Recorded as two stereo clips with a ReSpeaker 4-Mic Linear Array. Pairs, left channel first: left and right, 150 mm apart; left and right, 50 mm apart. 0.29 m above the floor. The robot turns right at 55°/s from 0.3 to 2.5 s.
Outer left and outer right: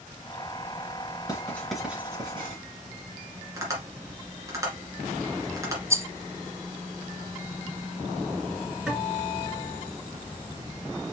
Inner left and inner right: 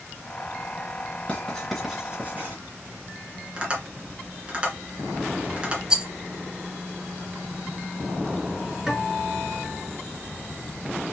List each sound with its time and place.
1.3 s writing: 25° left (ahead or behind), 3 m; by 2.5 s 40° right (ahead or behind), 3 m
3.6 s tapping: 20° right (ahead or behind), 2.5 m
5.9 s a rattle: 20° right (ahead or behind), 0.5 m
8.9 s a guitar: 5° right (ahead or behind), 3.5 m